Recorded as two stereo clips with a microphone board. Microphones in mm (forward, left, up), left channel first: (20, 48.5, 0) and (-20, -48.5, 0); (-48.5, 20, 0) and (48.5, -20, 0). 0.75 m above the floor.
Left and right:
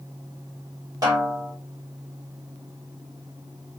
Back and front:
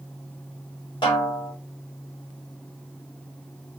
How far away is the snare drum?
About 2.5 m.